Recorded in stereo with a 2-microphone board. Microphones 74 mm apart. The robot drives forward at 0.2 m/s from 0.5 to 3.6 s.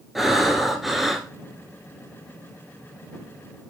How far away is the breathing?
About 1.0 m.